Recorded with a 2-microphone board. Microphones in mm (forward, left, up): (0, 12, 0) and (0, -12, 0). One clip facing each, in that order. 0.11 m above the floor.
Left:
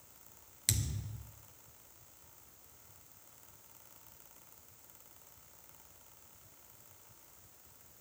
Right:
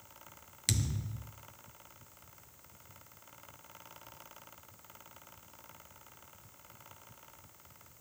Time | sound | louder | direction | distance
0.7 | a thud | right 2 dB | 5° right (ahead or behind) | 0.9 m